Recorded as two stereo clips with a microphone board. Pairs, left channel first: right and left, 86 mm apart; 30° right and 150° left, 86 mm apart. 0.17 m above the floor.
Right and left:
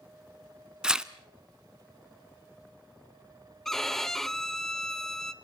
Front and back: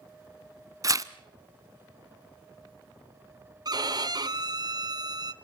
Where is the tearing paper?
170° left, 0.7 m.